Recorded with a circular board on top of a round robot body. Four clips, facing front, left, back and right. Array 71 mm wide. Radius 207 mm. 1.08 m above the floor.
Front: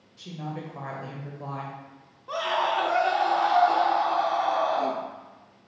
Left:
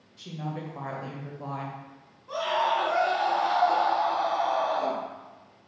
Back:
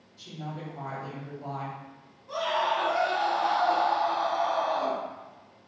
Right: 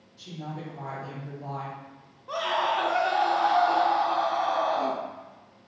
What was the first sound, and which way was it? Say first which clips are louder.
A woman speaking: left 2 dB, front 3 dB; 50° left.